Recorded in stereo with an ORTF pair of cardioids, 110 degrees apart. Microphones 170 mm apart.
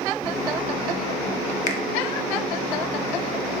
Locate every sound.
1.7 s a finger snap: 50° left, 0.6 m